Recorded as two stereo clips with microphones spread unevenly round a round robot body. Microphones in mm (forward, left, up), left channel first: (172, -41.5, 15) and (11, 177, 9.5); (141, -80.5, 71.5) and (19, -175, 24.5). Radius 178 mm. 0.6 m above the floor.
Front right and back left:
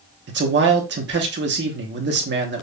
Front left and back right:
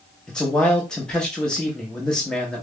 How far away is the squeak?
No squeak in this recording.